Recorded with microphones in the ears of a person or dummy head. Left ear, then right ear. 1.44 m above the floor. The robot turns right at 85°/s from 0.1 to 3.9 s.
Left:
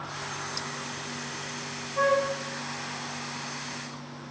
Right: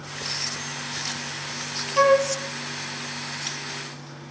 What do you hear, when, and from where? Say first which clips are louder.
2.0 s a flute: right 6 dB; 70° right (ahead or behind), 1.1 m; by 2.3 s 80° right, 1.1 m